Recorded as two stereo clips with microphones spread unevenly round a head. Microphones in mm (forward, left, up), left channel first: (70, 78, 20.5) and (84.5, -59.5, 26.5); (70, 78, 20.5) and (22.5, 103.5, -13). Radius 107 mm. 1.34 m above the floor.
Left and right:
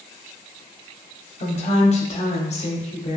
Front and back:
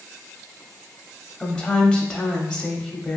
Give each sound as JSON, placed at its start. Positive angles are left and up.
{"t": 1.4, "sound": "a woman speaking", "azimuth_deg": 60, "distance_m": 0.7}